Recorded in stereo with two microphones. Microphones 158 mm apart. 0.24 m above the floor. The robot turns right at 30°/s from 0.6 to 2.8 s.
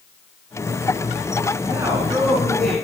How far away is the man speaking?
About 3 m.